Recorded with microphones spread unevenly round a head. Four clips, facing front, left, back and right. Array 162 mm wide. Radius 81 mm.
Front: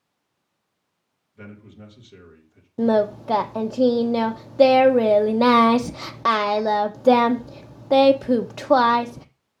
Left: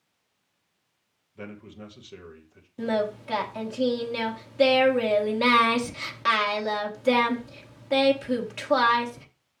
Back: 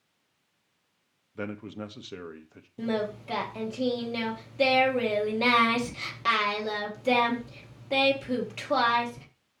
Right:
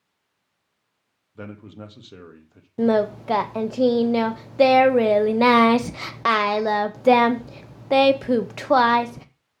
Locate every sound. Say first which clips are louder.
1.4 s a man speaking: right 3 dB, back 7 dB; 160° right, 1.9 m
2.8 s singing: right 7 dB, front 11 dB; 35° right, 0.9 m